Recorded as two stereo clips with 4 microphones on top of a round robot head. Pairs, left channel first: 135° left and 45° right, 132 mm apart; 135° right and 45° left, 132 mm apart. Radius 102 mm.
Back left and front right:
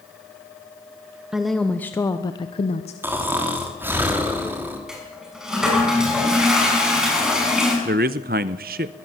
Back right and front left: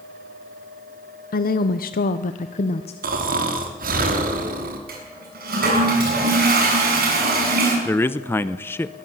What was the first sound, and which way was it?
A woman speaking, 130° right.